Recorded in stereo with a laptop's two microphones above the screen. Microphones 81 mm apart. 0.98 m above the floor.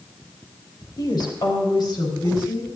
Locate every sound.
1.0 s a woman speaking: 60° left (ahead or behind), 3.5 m; by 2.7 s 65° left (ahead or behind), 5 m